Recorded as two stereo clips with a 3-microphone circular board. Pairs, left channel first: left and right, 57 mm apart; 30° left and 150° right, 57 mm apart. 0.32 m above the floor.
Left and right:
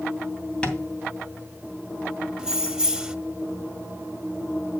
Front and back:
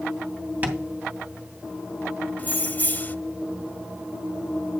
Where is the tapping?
160° left, 2.5 m.